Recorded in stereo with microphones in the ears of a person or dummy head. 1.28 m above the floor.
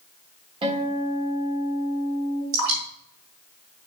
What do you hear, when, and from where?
0.6 s a guitar: 35° right (ahead or behind), 1.6 m
2.5 s dripping: 75° right (ahead or behind), 3.5 m